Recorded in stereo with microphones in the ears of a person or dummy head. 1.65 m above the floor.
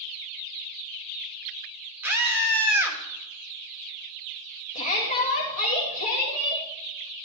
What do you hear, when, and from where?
2.0 s a scream: 5° right (ahead or behind), 2 m
4.8 s a shout: 40° left (ahead or behind), 2 m